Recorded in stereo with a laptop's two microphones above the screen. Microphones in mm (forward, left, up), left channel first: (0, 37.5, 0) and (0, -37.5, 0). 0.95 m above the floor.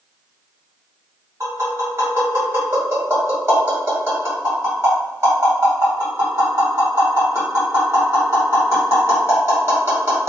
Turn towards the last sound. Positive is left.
turn(degrees=-40)  # may be behind; listen again after turning